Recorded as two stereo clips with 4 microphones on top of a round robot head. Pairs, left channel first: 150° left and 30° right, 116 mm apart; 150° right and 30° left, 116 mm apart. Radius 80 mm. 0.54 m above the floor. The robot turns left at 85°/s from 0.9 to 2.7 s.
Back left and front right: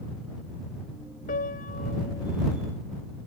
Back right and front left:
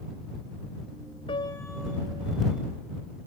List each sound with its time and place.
1.3 s a piano: 165° left; by 2.4 s 75° left